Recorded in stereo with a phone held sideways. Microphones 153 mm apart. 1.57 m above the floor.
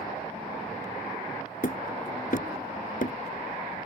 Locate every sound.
1.6 s hammering: 60° left (ahead or behind)